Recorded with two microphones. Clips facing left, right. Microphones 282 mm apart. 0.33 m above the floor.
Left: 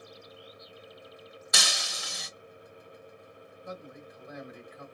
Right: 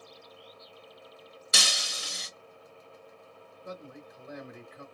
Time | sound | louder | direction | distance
1.5 | breaking glass | even | 35° right (ahead or behind) | 1.0 m
3.6 | a man speaking | even | 35° right (ahead or behind) | 1.2 m